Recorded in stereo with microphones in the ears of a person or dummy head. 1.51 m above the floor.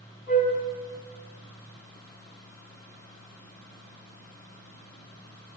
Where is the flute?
35° left (ahead or behind), 1.6 m.